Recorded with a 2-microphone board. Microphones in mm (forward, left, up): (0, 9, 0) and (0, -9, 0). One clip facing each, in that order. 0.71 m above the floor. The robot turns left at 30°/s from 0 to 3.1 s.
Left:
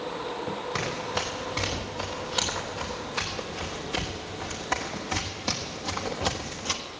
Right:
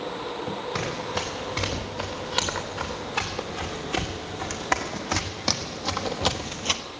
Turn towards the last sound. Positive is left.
turn(degrees=-40)  # may be behind; listen again after turning